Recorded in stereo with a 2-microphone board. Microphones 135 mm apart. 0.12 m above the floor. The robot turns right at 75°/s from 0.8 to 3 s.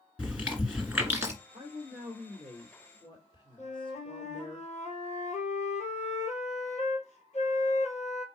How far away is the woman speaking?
About 2 m.